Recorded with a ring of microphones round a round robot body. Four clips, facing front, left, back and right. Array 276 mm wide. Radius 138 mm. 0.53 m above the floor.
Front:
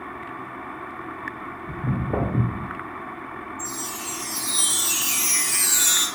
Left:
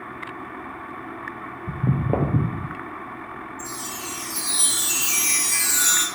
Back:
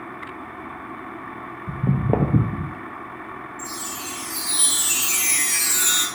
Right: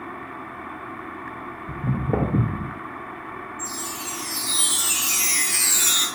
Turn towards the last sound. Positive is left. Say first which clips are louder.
# right 1 dB, even
turn(degrees=105)